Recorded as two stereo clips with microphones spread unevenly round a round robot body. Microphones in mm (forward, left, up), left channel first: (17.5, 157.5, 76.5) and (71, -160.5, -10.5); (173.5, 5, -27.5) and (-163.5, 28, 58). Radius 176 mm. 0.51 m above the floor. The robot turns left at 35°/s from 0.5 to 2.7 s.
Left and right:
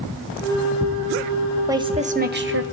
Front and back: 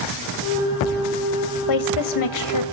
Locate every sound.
1.7 s a woman speaking: 5° right, 1.9 m; by 2.6 s 40° right, 1.9 m